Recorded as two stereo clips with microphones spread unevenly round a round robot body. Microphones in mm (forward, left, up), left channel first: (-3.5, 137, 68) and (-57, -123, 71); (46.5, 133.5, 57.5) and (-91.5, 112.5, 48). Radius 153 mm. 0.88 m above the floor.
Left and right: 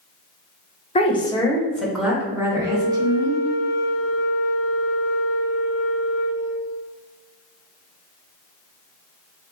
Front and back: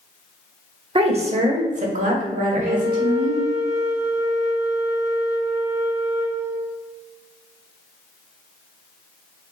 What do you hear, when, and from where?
0.9 s a woman speaking: 145° left, 0.9 m; by 3.4 s 175° right, 1.7 m
2.6 s a flute: straight behind, 0.9 m